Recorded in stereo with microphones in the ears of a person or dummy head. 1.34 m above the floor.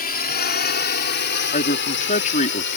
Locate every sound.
0.0 s a drone: 45° left (ahead or behind); by 2.8 s 60° left (ahead or behind)
1.5 s a man speaking: 40° left (ahead or behind)